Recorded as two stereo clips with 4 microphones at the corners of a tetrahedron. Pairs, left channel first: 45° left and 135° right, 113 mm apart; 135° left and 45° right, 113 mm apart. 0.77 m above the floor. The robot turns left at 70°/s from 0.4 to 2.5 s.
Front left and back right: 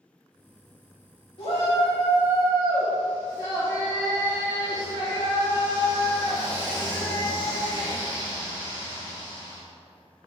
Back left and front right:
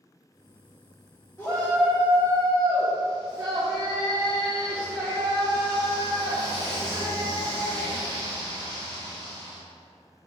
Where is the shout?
75° left, 1.6 m; by 9.6 s 5° right, 1.6 m.